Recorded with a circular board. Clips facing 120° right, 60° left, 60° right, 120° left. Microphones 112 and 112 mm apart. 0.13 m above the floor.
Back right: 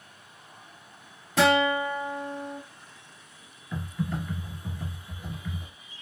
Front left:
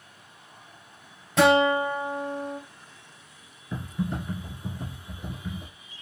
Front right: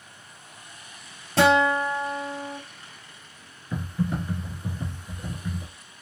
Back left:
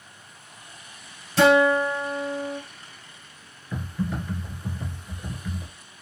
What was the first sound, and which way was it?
A guitar, 30° right.